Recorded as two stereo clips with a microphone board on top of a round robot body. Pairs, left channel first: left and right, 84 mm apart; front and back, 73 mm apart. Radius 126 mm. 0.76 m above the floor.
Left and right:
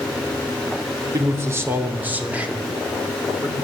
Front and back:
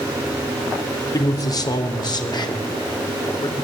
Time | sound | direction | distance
1.1 | a man speaking | 35° right | 3 m